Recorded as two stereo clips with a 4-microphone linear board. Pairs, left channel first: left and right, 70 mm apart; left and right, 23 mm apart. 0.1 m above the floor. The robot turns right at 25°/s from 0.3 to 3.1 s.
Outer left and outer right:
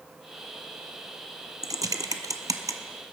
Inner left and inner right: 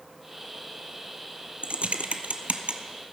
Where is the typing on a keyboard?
65° right (ahead or behind), 0.7 m; by 2.8 s 60° right (ahead or behind), 0.7 m.